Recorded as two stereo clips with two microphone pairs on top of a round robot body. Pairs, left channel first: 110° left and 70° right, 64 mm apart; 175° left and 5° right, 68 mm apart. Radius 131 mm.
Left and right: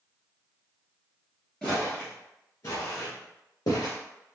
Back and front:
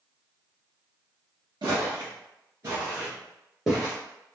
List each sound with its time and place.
1.6 s footsteps: 10° left, 1.3 m; by 4.0 s 95° left, 1.4 m